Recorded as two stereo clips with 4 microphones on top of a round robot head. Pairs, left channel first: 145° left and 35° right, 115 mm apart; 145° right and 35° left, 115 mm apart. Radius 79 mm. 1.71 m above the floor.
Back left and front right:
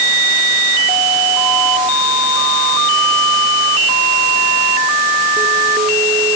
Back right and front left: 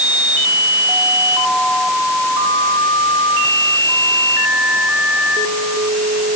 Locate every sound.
Only background noise.